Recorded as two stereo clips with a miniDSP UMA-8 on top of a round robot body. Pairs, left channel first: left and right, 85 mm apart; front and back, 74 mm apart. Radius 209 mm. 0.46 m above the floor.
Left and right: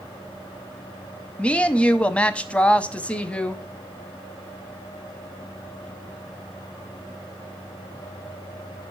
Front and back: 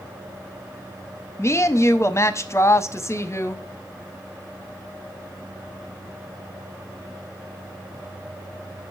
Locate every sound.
1.4 s a woman speaking: 20° left, 0.9 m